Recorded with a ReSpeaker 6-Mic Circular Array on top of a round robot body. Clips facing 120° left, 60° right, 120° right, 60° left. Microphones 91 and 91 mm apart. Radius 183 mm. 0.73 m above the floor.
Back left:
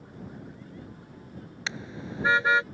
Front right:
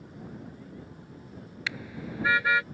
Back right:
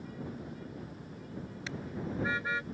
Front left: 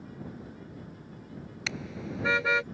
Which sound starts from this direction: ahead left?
A car horn, at 1.7 s.